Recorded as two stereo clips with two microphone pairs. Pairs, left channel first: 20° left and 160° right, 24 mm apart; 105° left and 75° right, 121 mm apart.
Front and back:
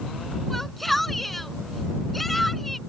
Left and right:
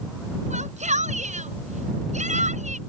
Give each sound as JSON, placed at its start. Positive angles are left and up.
{"t": 0.5, "sound": "a shout", "azimuth_deg": -70}